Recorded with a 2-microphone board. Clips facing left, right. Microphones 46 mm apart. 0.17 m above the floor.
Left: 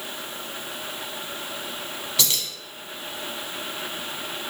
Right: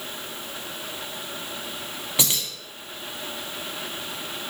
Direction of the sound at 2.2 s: 20° right (ahead or behind).